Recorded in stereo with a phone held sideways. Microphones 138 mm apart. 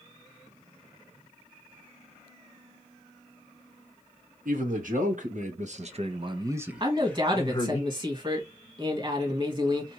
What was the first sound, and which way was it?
A man speaking, 75° right (ahead or behind).